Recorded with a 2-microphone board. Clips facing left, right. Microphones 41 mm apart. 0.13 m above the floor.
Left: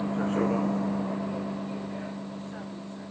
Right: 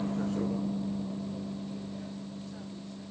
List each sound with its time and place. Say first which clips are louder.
0.0 s a vehicle: left 5 dB; 25° left (ahead or behind); by 3.1 s 40° left (ahead or behind)